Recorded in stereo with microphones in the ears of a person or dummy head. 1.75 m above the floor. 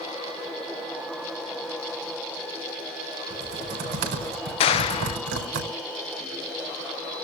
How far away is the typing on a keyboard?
About 4.5 m.